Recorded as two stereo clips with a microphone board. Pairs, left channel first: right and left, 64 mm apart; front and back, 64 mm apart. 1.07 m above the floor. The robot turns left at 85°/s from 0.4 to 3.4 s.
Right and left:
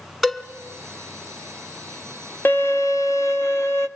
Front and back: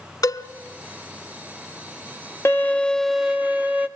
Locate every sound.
0.2 s a cowbell: 5° left, 1.4 m; by 0.5 s straight ahead, 1.4 m
2.5 s a violin: 40° right, 0.8 m; by 3.9 s 120° right, 0.8 m